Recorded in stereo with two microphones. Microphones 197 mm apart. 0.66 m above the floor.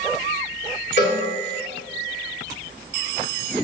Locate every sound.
1.0 s a cowbell: 70° left (ahead or behind), 1.2 m